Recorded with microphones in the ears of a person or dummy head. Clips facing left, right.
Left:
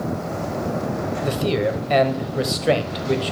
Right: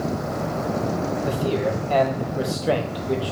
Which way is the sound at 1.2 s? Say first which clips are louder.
Left 4 dB; 25° left (ahead or behind).